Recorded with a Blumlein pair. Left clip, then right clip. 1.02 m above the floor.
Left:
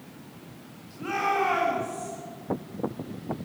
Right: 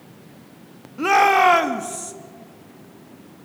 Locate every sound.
1.0 s a shout: 55° right, 1.7 m